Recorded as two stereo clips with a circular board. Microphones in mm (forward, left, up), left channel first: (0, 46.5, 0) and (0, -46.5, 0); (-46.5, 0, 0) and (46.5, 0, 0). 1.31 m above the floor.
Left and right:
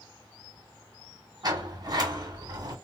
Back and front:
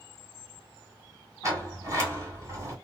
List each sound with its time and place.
1.4 s a sliding door: 50° right, 2 m